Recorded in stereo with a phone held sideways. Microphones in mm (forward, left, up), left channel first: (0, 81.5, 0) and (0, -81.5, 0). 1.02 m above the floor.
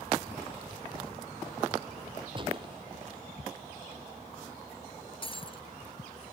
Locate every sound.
2.4 s a gunshot: 35° right (ahead or behind)
5.2 s breaking glass: 35° left (ahead or behind)